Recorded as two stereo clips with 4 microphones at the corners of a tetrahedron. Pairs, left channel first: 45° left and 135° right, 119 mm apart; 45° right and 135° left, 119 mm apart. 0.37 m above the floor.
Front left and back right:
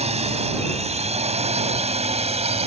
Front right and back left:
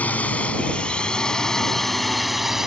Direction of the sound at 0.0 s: 120° right.